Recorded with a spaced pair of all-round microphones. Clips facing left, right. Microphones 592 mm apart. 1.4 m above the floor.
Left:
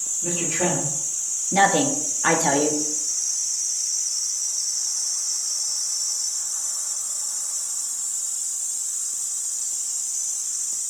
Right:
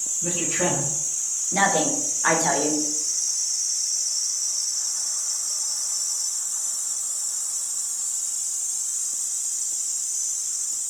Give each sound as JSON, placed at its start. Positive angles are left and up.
{"t": 0.2, "sound": "a man speaking", "side_deg": -45, "distance_m": 2.0}
{"t": 1.5, "sound": "a woman speaking", "side_deg": 60, "distance_m": 0.6}